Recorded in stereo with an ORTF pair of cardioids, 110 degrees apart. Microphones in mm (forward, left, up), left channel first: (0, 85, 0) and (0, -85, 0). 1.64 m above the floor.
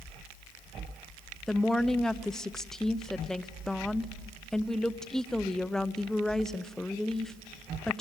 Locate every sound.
1.5 s a woman speaking: 5° left, 0.7 m